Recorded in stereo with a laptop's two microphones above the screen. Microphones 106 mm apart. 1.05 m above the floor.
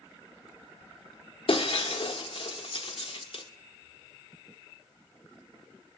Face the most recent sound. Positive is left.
turn(degrees=55)  # may be behind; listen again after turning